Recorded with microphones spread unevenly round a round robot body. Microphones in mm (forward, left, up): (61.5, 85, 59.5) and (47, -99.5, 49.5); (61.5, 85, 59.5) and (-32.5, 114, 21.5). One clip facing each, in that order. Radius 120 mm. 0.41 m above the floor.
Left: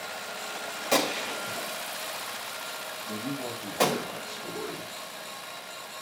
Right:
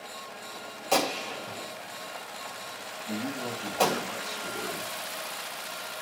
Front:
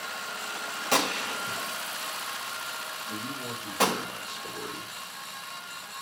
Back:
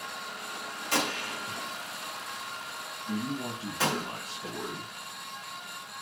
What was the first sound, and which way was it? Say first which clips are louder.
A gunshot: even, front 3 dB; 5° left.